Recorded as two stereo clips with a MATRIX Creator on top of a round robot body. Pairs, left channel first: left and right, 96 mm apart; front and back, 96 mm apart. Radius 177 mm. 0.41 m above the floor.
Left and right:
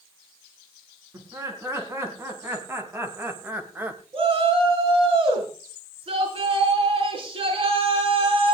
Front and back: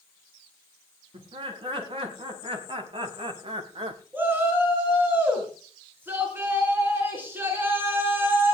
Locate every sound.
1.1 s laughter: 150° right, 6.5 m; by 4.0 s 160° right, 3 m
4.1 s a shout: 110° right, 6.5 m